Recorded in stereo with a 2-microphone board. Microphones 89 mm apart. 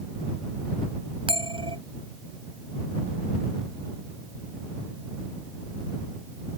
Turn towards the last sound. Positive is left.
turn(degrees=-85)